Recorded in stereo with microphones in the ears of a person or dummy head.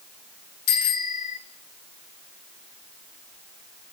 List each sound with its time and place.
0.7 s a bicycle bell: 45° left (ahead or behind), 3 m